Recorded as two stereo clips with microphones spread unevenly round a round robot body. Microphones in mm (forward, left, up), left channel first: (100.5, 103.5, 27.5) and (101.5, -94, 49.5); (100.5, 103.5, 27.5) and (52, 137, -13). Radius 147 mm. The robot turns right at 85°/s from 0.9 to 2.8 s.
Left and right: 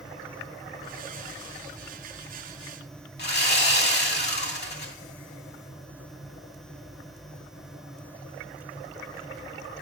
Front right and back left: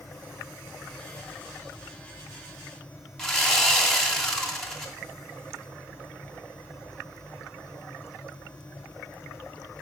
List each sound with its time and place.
3.2 s sawing: 65° left, 3 m